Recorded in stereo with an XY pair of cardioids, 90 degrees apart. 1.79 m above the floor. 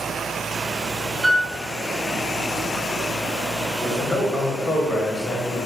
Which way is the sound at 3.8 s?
20° left.